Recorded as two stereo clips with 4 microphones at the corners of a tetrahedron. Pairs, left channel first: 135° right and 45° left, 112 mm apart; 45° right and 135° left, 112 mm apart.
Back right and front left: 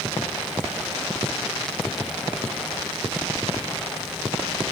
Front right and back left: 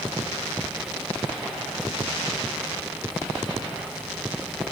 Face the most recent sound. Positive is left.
No sound to turn to.